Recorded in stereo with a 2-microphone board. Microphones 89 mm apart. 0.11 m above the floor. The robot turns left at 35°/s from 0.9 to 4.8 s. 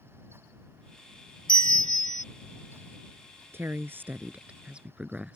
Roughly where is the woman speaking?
Right.